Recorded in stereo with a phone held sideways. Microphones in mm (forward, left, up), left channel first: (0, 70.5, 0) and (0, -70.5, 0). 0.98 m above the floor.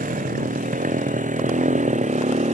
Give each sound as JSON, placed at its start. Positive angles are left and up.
{"t": 0.0, "sound": "a motorcycle", "side_deg": -75}